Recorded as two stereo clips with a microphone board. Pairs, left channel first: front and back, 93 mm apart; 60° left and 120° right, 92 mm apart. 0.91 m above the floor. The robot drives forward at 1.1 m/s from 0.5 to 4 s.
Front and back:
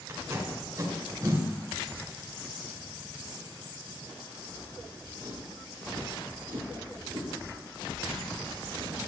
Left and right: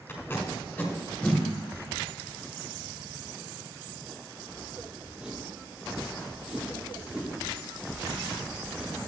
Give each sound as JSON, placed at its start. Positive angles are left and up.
{"t": 0.1, "sound": "tape being pulled", "azimuth_deg": 125, "distance_m": 2.5}